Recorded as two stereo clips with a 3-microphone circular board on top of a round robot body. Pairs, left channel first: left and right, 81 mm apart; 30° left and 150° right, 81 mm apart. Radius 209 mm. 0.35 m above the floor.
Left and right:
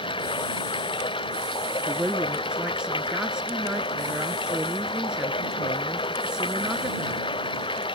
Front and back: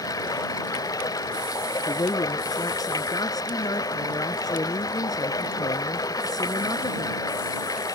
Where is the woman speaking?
10° right.